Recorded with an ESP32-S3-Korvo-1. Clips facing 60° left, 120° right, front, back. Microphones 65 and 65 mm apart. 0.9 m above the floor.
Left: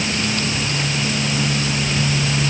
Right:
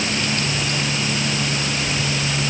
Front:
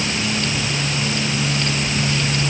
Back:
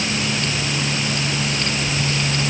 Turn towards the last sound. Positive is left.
No sound to turn to.